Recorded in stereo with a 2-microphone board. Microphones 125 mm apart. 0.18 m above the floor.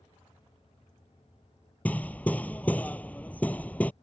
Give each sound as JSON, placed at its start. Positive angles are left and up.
{"t": 1.9, "sound": "hammering", "side_deg": 10}